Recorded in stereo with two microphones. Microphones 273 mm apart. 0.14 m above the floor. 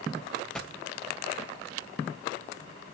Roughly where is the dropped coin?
Centre.